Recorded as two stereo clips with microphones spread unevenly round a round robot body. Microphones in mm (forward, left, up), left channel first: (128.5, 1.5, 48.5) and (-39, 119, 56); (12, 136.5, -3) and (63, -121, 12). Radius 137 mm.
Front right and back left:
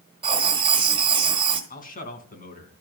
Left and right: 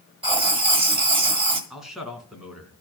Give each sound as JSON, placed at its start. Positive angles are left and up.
{"t": 0.2, "sound": "writing", "azimuth_deg": -150, "distance_m": 1.7}
{"t": 1.7, "sound": "a man speaking", "azimuth_deg": 10, "distance_m": 3.5}